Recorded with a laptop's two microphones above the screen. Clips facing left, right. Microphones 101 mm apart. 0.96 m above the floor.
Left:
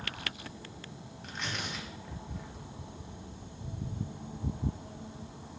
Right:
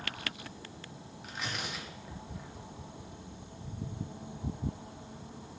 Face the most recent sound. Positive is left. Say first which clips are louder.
# even
turn(degrees=-5)  # may be behind; listen again after turning